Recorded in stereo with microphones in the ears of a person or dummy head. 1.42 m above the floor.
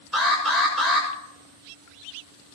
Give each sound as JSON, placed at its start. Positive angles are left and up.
{"t": 0.1, "sound": "an alarm", "side_deg": 5, "distance_m": 7.0}